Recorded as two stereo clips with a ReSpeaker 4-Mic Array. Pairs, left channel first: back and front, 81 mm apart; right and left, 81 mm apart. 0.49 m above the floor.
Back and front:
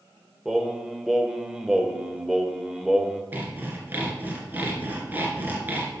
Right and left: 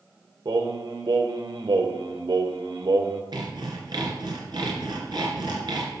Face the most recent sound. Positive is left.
turn(degrees=65)